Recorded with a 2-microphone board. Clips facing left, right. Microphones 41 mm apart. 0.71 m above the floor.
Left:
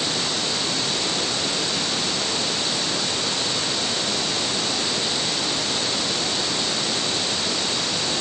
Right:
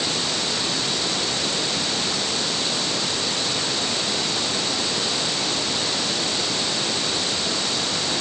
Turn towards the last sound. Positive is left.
No sound to turn to.